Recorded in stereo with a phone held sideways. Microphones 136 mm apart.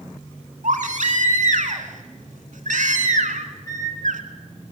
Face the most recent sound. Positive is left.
turn(degrees=-70)  # may be behind; listen again after turning